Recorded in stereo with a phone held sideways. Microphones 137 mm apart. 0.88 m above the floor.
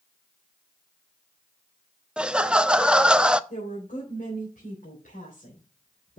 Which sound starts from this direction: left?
A woman speaking, at 3.5 s.